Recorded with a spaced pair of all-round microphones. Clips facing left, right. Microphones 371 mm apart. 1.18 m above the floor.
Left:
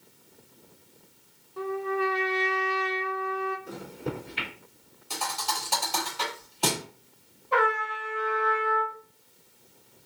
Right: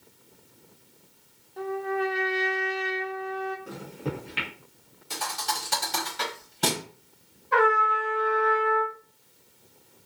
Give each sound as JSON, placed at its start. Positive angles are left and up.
{"t": 1.6, "sound": "a trumpet", "side_deg": 10, "distance_m": 0.5}
{"t": 3.7, "sound": "a microwave", "side_deg": -70, "distance_m": 1.1}
{"t": 5.1, "sound": "a thud", "side_deg": -30, "distance_m": 1.1}
{"t": 7.5, "sound": "a trumpet", "side_deg": -25, "distance_m": 1.1}